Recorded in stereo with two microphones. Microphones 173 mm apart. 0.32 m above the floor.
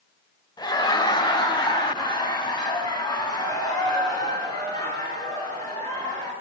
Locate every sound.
0.6 s laughter: 25° left (ahead or behind), 1.0 m